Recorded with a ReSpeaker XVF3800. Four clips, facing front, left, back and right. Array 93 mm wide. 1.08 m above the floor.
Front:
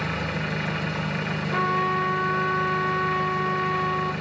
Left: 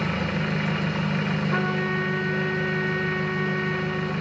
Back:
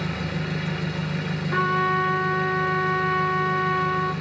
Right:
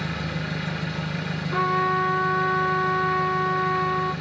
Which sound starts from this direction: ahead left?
An engine running, at 0.0 s.